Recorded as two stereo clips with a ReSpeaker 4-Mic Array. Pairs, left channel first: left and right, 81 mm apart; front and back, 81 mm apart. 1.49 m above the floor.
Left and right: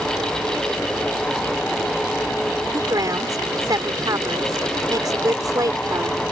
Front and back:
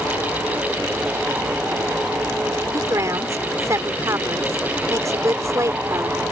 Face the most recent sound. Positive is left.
turn(degrees=-130)